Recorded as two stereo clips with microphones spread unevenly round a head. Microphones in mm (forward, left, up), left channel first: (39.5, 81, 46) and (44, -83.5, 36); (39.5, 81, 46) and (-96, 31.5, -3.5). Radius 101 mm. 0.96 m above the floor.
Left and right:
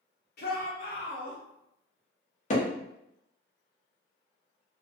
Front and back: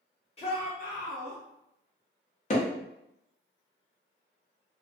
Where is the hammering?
50° left, 0.8 m.